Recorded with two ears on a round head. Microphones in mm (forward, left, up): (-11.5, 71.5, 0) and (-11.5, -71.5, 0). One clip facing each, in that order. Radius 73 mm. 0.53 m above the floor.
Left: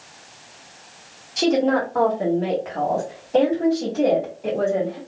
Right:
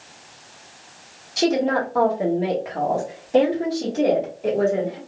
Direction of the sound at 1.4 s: 5° right (ahead or behind).